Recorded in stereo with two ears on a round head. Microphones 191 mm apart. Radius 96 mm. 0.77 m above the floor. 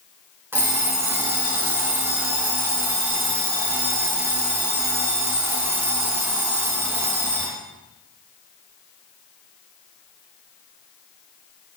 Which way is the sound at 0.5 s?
10° right (ahead or behind).